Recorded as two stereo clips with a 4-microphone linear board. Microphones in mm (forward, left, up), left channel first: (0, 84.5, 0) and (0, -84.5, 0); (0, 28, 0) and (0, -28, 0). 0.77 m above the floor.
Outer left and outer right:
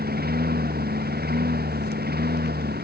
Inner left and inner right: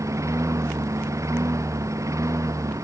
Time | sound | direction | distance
0.0 | a lawn mower | 60° right (ahead or behind) | ?